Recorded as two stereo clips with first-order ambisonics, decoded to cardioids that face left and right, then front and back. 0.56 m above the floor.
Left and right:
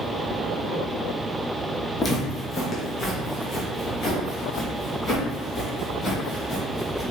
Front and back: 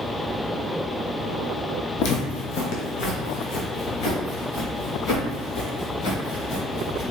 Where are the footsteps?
15° left, 1.2 m; by 7.0 s 20° left, 4.5 m.